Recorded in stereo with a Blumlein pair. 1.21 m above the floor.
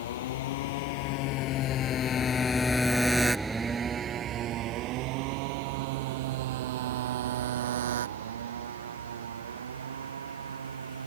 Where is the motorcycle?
60° left; by 11.1 s 70° right.